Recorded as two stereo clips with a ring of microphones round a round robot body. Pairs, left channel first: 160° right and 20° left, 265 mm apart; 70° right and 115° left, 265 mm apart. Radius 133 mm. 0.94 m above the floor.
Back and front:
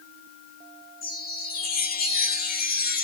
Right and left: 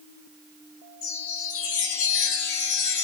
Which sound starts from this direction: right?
A chime, at 1.0 s.